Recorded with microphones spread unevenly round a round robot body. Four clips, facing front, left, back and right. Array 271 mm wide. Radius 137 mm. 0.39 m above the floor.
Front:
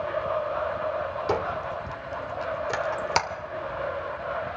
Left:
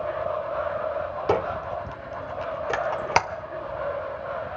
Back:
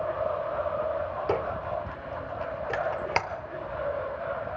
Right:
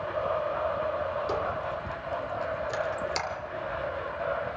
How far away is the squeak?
About 0.7 m.